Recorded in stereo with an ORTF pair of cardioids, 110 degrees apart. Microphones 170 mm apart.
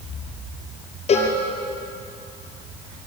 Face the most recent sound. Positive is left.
turn(degrees=40)